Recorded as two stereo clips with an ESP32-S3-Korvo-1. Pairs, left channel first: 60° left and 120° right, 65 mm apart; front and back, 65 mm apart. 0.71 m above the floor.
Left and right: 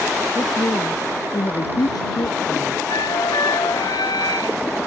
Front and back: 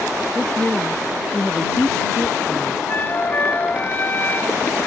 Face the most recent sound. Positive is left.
turn(degrees=60)